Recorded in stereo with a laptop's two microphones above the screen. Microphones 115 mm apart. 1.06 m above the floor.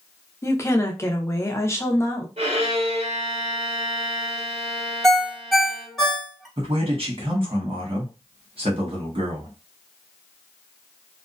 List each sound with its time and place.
0.4 s a woman speaking: 25° left (ahead or behind), 0.6 m
2.4 s a violin: 65° right (ahead or behind), 1.3 m
5.0 s a ringtone: centre (ahead or behind), 1.0 m
6.6 s a man speaking: 55° right (ahead or behind), 1.3 m